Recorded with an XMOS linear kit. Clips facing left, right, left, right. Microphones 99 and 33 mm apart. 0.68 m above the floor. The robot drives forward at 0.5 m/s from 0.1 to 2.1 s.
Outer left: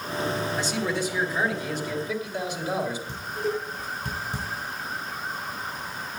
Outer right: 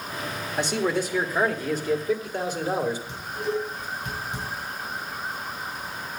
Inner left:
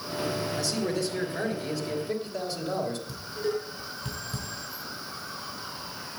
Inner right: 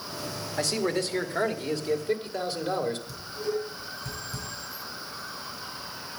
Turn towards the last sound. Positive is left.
turn(degrees=35)  # may be behind; listen again after turning